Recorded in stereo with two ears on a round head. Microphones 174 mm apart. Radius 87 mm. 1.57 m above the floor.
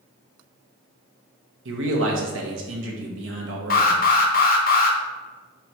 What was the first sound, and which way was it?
A man speaking, 70° right (ahead or behind).